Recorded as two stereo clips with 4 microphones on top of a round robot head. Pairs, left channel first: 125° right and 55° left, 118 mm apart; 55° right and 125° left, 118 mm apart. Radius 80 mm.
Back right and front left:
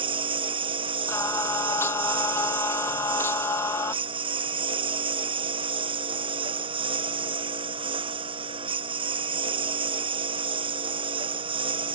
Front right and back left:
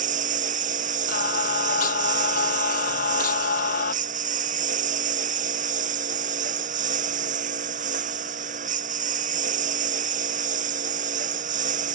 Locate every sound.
0.0 s a lawn mower: 105° left
1.1 s singing: 50° right